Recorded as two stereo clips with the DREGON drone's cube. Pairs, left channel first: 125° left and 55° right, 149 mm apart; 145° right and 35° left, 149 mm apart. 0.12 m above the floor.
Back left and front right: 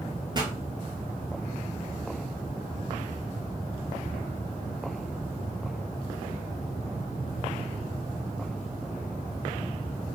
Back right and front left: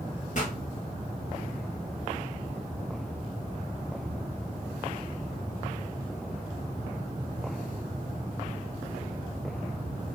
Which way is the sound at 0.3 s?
115° right.